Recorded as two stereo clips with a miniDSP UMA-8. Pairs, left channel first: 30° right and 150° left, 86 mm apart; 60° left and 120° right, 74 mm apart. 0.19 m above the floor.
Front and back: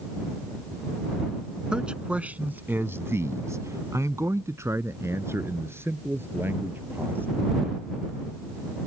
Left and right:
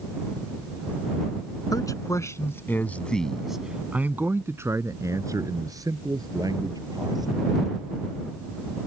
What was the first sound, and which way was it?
A man speaking, 75° left.